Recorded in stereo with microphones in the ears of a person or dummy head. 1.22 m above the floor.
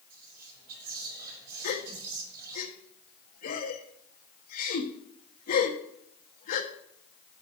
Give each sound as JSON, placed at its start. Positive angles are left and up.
{"t": 0.1, "sound": "whispering", "side_deg": -55, "distance_m": 4.0}
{"t": 1.6, "sound": "a gasp", "side_deg": 50, "distance_m": 1.2}